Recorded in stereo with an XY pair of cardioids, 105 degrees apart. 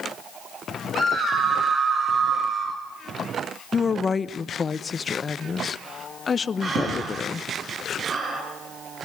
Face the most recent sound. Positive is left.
turn(degrees=-45)